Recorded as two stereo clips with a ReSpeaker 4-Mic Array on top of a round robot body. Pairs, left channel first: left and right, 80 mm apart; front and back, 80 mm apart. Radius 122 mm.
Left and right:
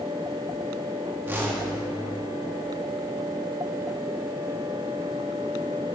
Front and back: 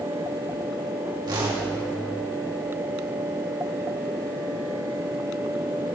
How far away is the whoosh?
About 2.5 m.